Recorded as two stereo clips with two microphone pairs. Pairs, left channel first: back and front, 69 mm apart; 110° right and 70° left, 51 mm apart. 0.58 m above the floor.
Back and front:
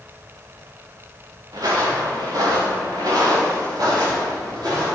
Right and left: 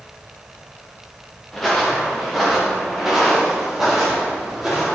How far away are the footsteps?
About 2.5 m.